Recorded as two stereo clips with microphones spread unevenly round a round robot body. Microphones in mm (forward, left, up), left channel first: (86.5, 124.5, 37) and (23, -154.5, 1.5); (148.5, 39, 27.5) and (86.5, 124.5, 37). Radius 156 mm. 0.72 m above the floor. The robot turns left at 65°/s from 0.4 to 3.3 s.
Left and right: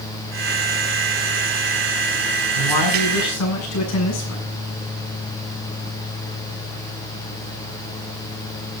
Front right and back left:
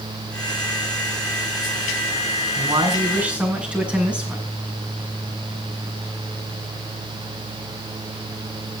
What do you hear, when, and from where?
2.6 s a man speaking: 95° left, 7.5 m; by 4.5 s 45° left, 7.5 m